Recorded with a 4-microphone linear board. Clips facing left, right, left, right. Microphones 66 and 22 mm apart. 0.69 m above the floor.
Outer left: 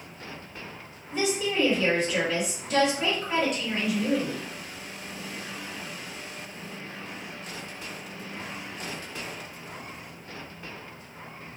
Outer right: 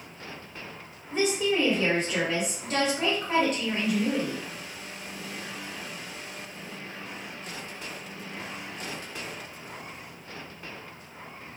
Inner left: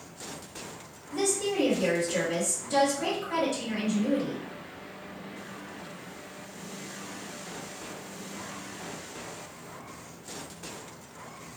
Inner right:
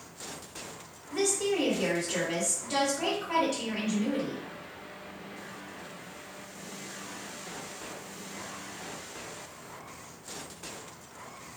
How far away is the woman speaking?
About 1.4 m.